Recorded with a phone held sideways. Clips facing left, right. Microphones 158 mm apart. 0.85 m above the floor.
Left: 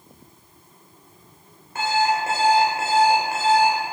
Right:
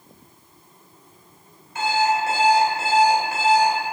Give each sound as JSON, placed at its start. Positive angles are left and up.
{"t": 1.8, "sound": "an alarm clock", "side_deg": 55, "distance_m": 2.0}